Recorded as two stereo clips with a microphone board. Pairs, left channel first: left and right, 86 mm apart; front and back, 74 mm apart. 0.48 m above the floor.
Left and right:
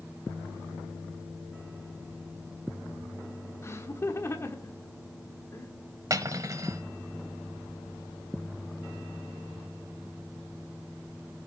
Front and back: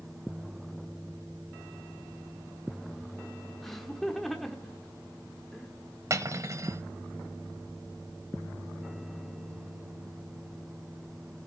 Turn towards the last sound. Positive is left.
turn(degrees=-135)